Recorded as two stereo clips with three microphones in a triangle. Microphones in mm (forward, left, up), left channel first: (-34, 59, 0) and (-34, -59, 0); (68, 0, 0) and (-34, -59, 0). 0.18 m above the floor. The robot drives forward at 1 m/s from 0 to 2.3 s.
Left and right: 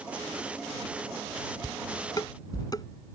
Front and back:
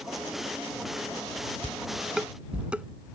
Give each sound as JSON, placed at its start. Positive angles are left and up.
{"t": 1.6, "sound": "dishes clattering", "azimuth_deg": 90}